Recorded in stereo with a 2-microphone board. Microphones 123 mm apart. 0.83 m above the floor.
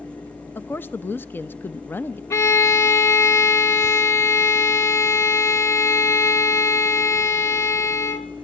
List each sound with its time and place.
0.6 s a woman speaking: 15° left (ahead or behind), 0.6 m
2.3 s a violin: 20° left (ahead or behind), 0.9 m